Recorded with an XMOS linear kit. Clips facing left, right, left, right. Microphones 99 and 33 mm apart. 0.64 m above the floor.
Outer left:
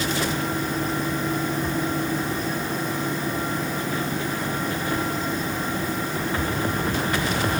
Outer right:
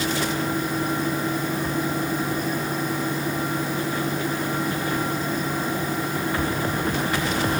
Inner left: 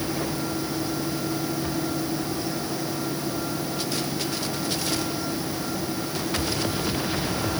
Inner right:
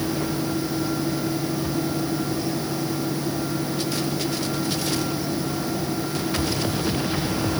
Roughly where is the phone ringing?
No phone ringing in this recording.